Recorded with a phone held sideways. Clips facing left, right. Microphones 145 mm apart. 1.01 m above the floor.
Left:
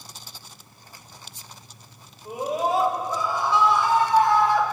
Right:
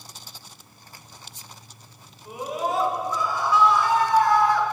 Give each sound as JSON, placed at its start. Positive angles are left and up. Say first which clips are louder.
{"t": 2.2, "sound": "a scream", "louder": "left 3 dB", "side_deg": 35, "distance_m": 5.0}